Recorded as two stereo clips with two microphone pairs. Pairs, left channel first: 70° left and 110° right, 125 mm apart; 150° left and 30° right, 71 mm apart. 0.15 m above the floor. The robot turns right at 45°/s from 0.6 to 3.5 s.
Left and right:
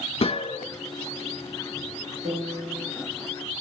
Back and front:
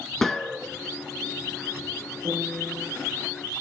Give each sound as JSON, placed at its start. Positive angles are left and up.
{"t": 0.2, "sound": "a gunshot", "azimuth_deg": 65, "distance_m": 0.6}
{"t": 2.2, "sound": "a piano", "azimuth_deg": -65, "distance_m": 5.5}